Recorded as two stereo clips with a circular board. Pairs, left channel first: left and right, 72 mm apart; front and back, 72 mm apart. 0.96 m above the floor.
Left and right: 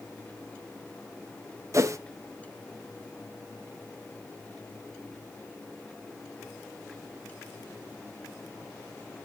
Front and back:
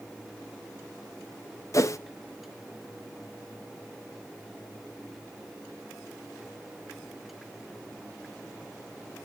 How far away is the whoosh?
About 0.6 m.